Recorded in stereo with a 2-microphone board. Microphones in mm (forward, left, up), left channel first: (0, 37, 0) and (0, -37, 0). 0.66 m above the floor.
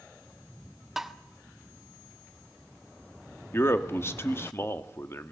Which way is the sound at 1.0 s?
5° right (ahead or behind).